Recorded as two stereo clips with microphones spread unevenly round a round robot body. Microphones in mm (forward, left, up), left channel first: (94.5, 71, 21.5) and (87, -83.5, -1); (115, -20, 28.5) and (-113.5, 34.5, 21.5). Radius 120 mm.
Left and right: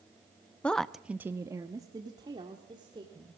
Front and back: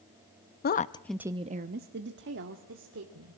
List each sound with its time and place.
0.6 s a woman speaking: 5° right, 0.6 m; by 3.4 s 160° right, 2 m